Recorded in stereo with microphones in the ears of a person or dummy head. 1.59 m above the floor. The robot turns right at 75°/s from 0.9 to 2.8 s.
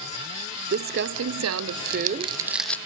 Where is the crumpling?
140° right, 0.6 m; by 2.8 s straight ahead, 0.6 m.